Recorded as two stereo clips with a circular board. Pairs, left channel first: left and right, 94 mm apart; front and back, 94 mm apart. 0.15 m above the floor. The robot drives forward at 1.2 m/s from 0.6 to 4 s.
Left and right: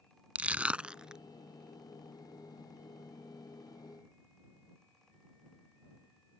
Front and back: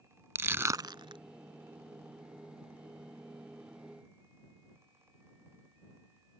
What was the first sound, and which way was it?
Crushing, 150° right.